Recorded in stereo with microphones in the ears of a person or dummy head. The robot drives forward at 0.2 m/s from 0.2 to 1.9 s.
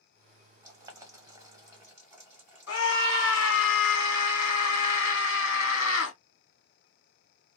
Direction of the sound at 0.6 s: 25° right (ahead or behind).